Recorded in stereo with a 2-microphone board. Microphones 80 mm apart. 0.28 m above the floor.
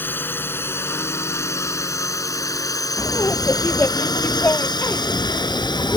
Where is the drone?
25° left (ahead or behind); by 6.0 s 65° left (ahead or behind).